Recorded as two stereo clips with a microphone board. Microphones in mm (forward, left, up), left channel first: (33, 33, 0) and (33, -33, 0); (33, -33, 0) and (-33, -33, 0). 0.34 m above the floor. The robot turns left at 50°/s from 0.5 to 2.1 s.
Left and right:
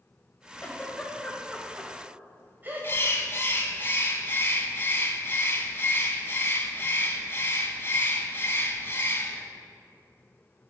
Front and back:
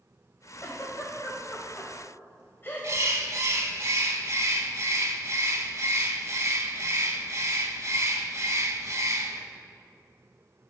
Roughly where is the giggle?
Ahead left.